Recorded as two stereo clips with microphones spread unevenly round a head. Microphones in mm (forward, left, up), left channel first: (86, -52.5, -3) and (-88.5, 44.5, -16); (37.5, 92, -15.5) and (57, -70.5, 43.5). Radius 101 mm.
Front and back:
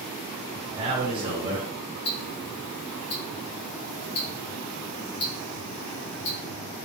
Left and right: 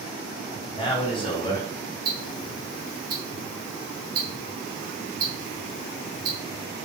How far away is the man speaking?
About 1.1 m.